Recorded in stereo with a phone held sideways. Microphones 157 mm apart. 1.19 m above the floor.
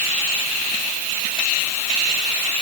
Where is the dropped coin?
I don't hear a dropped coin.